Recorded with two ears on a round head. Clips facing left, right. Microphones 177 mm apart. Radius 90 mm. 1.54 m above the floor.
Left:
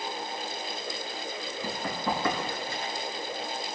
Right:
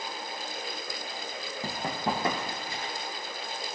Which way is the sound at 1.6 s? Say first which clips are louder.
Even; 35° right (ahead or behind).